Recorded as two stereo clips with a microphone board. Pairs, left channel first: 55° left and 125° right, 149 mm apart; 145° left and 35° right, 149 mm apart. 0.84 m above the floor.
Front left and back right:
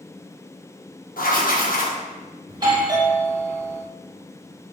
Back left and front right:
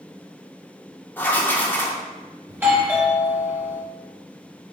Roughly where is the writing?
Left.